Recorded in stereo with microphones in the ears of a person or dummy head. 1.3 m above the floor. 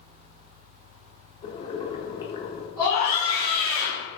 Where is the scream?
10° right (ahead or behind), 1.7 m.